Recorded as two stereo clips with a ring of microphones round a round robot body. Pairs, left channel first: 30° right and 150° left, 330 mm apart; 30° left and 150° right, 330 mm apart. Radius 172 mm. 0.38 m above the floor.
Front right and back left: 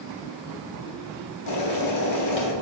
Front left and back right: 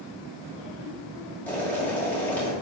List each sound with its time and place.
1.5 s boiling: 55° right, 2 m